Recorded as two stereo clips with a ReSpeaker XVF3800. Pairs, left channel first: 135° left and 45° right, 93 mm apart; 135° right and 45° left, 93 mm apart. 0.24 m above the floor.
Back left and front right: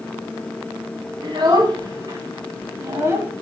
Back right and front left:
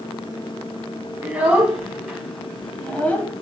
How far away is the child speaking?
About 1.5 m.